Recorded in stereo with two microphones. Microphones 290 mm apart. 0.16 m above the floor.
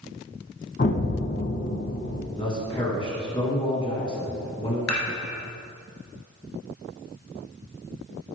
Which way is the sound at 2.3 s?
15° left (ahead or behind).